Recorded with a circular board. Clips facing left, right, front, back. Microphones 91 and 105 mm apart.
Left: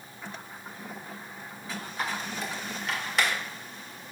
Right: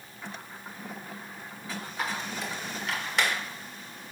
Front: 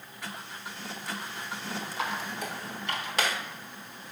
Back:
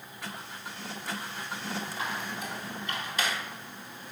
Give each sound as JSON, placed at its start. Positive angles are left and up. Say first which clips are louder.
{"t": 2.0, "sound": "a squeak", "louder": "left 1 dB, front 2 dB", "azimuth_deg": 0, "distance_m": 1.1}